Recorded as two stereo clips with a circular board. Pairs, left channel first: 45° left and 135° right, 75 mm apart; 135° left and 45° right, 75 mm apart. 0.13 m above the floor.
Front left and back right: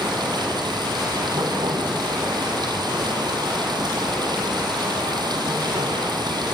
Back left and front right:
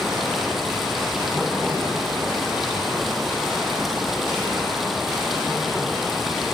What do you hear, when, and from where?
0.0 s running water: 135° right, 4 m